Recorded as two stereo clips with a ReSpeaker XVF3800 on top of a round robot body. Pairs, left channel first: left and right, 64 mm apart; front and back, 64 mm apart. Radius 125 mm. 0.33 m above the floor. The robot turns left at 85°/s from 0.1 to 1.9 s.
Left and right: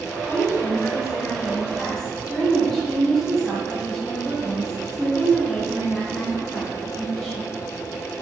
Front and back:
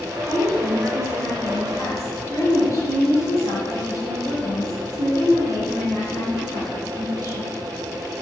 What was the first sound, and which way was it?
A woman speaking, 145° left.